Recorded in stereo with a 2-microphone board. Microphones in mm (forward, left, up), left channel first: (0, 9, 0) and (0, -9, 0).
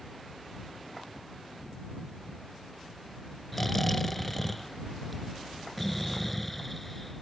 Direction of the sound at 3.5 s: 5° left (ahead or behind).